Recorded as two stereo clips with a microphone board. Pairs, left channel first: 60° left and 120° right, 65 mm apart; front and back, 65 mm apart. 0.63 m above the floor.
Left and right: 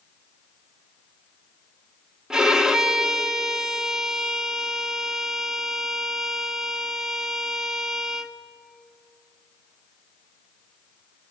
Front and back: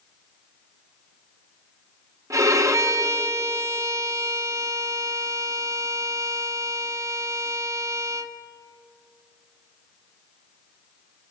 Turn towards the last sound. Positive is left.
turn(degrees=160)